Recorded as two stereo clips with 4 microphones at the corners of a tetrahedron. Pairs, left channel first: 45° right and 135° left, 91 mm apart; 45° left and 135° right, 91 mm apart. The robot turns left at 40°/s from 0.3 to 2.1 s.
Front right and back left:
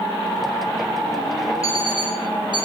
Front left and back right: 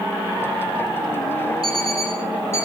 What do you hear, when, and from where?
1.6 s an alarm clock: 5° left, 1.3 m; by 2.6 s 15° right, 1.3 m